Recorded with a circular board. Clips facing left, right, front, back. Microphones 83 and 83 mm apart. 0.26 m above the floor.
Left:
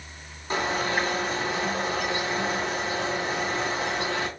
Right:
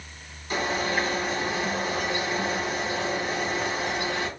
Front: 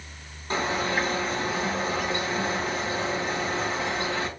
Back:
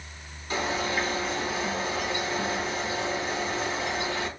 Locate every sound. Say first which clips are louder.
0.5 s a bird: even, front 2 dB; 40° left, 2.5 m